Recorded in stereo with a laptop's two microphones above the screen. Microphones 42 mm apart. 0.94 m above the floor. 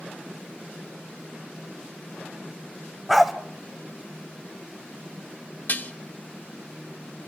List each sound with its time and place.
3.1 s a dog barking: centre (ahead or behind), 1.2 m
5.7 s dishes clattering: 45° left (ahead or behind), 1.6 m